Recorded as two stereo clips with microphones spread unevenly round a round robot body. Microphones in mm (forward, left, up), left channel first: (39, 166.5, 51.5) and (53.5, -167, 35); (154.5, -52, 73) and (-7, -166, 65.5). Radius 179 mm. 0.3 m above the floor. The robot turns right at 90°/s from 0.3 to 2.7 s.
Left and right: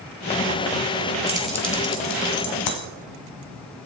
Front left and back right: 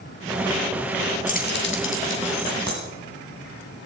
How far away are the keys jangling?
About 2.5 m.